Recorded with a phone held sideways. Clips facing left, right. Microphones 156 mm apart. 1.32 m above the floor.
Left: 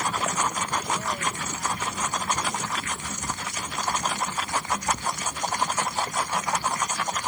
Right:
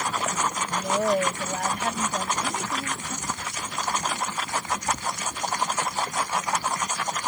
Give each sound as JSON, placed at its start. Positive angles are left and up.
{"t": 0.7, "sound": "a woman speaking", "side_deg": -65}